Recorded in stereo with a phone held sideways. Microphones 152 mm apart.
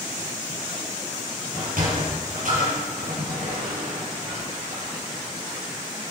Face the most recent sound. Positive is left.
turn(degrees=-70)  # may be behind; listen again after turning